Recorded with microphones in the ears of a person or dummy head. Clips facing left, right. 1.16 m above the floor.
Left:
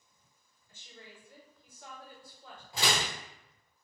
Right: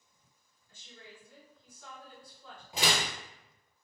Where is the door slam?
15° right (ahead or behind), 0.8 m.